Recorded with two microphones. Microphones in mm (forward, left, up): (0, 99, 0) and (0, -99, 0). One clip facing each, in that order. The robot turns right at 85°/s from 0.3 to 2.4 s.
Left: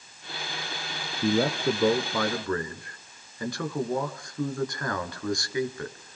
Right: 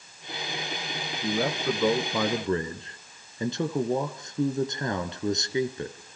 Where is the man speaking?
110° left, 2.0 m; by 6.2 s 150° right, 2.0 m.